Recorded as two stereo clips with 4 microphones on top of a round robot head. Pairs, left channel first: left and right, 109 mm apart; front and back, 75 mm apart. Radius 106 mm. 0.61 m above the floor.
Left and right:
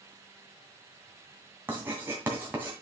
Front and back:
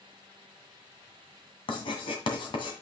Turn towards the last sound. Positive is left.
turn(degrees=-15)